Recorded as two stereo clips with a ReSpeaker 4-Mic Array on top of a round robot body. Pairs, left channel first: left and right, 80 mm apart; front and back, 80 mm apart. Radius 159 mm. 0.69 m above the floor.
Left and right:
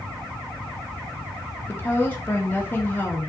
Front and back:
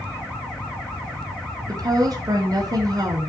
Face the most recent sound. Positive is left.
turn(degrees=155)